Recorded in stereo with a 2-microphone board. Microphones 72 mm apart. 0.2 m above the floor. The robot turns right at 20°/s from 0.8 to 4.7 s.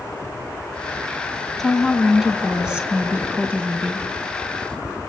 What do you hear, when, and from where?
1.6 s a woman speaking: 175° left, 2 m; by 4.1 s 135° right, 2 m